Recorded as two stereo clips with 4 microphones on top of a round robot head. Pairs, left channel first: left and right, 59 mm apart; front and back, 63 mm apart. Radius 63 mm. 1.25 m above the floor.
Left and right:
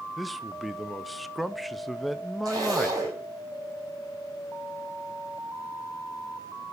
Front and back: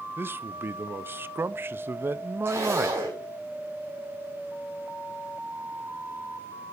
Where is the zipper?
120° right, 4 m.